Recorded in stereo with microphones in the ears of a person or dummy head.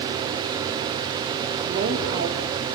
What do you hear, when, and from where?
1.6 s a woman speaking: 40° right (ahead or behind), 3.5 m; by 2.7 s 50° right (ahead or behind), 4.5 m